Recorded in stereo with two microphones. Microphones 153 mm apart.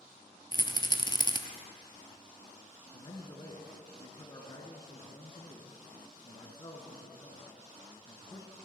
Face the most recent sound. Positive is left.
turn(degrees=30)  # may be behind; listen again after turning